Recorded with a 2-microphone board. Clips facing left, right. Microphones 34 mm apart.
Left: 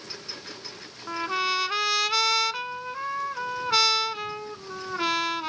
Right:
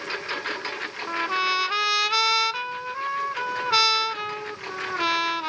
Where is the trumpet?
10° right (ahead or behind).